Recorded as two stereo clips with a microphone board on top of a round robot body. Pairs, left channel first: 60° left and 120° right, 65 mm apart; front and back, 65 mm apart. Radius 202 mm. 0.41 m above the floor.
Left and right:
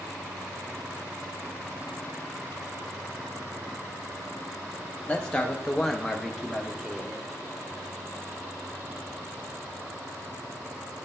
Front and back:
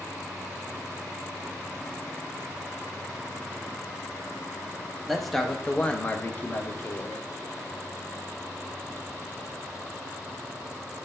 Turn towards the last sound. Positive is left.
turn(degrees=-40)